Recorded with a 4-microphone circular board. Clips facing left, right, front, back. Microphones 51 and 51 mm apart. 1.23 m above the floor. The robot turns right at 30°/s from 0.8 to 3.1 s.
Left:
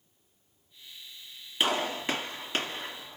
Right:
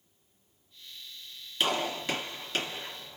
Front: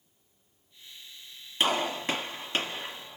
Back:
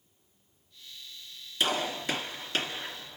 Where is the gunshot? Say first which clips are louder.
Left 1 dB, front 2 dB; 20° left, 1.5 m; by 3.2 s 65° left, 1.5 m.